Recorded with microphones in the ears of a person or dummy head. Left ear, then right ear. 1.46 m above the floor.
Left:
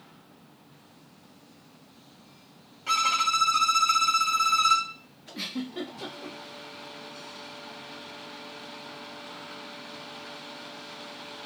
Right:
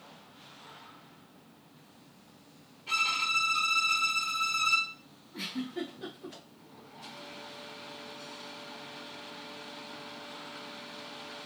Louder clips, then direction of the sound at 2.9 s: Left 5 dB; 55° left (ahead or behind).